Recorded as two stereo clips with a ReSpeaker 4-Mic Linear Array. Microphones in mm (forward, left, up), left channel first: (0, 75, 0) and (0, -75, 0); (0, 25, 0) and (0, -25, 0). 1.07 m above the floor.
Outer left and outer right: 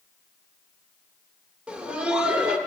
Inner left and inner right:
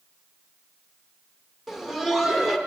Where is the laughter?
5° right (ahead or behind), 0.9 m.